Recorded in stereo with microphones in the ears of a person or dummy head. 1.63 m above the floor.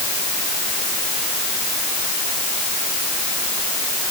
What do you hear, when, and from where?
Only background noise.